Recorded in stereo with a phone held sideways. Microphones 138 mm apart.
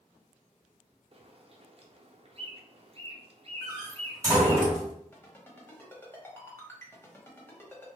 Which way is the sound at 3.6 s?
20° right (ahead or behind).